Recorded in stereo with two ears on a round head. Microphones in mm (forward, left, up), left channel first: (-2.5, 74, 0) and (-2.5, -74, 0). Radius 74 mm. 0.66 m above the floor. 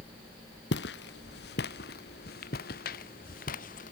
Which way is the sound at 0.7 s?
75° left (ahead or behind).